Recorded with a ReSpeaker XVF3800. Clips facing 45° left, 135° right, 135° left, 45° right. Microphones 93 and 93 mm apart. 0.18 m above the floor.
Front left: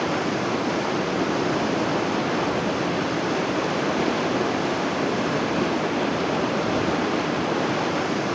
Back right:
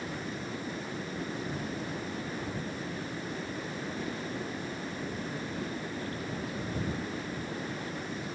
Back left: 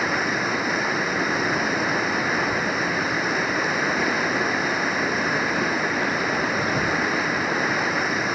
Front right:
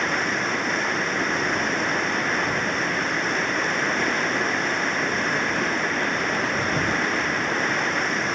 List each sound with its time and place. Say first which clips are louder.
0.0 s running water: front left 14 dB, back left 1 dB; 50° left